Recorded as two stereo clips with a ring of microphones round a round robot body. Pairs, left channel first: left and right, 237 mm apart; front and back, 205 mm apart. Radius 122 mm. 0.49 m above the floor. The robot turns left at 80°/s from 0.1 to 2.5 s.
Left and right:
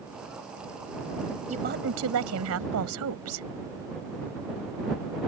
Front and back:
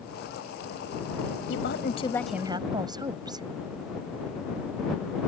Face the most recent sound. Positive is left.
turn(degrees=-110)